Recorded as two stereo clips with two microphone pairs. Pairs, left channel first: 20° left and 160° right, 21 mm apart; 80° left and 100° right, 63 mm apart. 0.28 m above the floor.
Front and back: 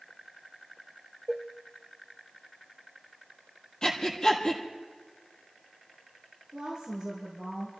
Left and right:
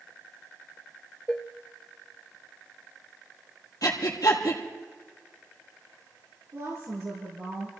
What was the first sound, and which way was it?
Dishes clattering, 115° left.